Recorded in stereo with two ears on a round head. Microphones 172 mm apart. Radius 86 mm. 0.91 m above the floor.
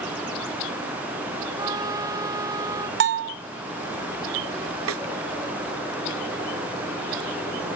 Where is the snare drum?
85° right.